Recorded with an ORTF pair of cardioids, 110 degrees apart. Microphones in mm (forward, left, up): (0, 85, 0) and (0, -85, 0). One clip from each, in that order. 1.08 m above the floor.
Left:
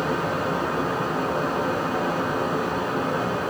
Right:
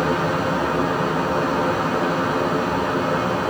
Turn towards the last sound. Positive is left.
turn(degrees=-25)